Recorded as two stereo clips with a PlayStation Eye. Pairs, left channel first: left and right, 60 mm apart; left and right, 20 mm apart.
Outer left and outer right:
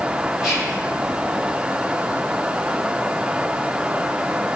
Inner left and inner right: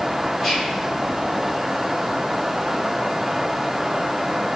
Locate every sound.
0.4 s whispering: 5° right (ahead or behind), 1.0 m